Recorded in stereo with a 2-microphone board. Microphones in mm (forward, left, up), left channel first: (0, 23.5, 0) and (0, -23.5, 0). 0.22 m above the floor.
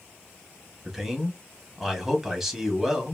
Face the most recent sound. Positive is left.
turn(degrees=-10)  # may be behind; listen again after turning